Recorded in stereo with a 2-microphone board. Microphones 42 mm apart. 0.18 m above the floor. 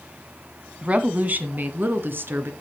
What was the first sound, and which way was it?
A woman speaking, 30° right (ahead or behind).